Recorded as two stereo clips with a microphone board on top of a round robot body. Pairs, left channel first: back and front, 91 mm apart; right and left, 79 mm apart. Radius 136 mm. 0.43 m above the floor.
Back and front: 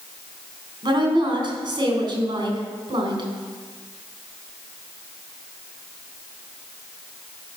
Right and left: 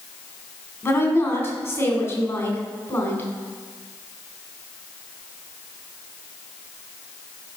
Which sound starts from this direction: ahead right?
A woman speaking, at 0.8 s.